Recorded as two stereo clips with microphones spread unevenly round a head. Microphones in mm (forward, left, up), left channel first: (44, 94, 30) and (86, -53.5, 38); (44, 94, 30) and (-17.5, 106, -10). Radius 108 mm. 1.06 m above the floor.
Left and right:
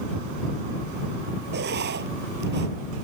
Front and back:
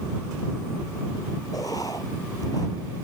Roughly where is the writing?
Right.